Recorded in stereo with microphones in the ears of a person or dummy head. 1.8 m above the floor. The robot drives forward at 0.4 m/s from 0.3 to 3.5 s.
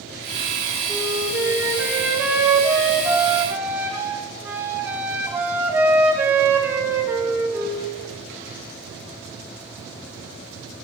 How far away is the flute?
About 4.5 m.